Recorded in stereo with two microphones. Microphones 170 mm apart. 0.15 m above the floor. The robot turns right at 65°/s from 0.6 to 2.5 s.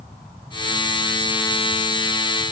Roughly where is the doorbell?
I don't hear a doorbell.